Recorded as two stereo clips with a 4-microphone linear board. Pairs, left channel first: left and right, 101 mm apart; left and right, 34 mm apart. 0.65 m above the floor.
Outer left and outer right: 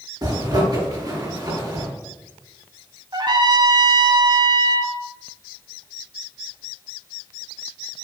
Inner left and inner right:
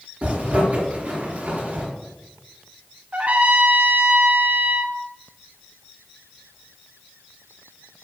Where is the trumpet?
50° right (ahead or behind), 1.4 m.